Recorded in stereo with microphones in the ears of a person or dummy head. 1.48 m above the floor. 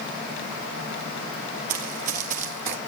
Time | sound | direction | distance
1.7 | running footsteps | 50° right (ahead or behind) | 2.5 m